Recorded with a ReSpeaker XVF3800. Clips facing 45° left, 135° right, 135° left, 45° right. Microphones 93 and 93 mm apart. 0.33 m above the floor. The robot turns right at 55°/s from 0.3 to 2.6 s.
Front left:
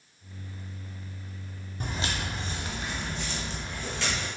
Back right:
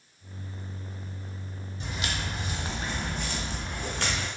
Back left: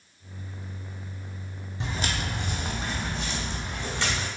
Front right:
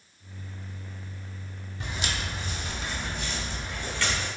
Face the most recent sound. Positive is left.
turn(degrees=-150)